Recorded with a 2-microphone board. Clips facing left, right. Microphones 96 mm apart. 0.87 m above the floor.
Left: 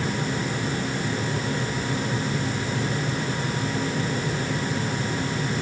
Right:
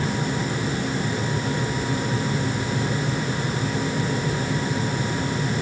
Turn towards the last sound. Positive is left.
No sound to turn to.